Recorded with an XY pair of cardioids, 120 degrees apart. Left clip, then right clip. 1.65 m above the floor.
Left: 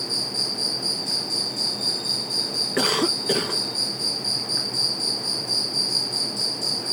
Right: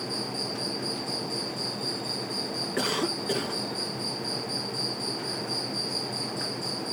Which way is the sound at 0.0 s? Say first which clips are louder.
Left 7 dB; 55° left.